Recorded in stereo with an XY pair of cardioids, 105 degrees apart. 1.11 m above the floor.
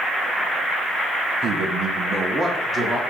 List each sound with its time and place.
1.4 s a man speaking: 65° right, 1.2 m; by 3.0 s 30° right, 2 m